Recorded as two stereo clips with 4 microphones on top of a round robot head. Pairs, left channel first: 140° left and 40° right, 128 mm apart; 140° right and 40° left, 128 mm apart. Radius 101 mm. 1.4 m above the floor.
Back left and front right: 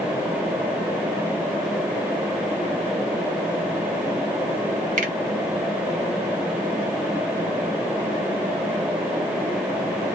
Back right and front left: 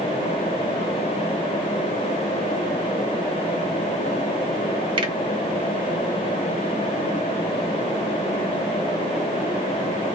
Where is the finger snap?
10° right, 1.9 m.